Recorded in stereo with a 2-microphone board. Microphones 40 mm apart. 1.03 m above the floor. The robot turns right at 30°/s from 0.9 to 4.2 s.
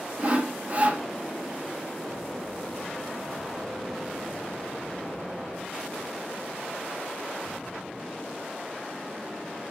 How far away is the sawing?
About 0.5 m.